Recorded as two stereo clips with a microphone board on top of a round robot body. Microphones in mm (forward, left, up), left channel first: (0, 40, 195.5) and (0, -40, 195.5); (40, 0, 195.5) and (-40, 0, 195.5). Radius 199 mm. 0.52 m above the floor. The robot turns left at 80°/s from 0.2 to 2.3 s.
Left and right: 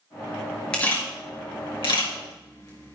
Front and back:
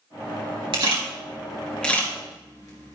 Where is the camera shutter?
165° left, 3 m; by 3.0 s 40° left, 3 m.